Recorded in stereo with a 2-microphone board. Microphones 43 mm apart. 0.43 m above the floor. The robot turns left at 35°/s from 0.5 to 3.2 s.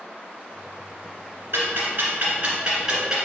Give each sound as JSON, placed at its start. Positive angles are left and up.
{"t": 1.5, "sound": "ticking", "side_deg": -70, "distance_m": 1.5}